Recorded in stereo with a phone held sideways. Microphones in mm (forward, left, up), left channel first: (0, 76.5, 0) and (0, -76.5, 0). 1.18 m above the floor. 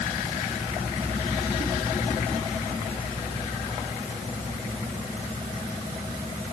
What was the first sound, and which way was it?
Only background noise.